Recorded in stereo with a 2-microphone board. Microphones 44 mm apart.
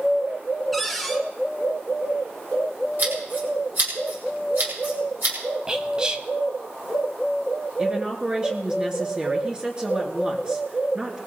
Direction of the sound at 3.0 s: 40° right (ahead or behind).